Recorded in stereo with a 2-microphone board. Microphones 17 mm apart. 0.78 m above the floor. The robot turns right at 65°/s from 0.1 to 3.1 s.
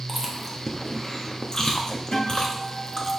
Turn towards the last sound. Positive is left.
turn(degrees=110)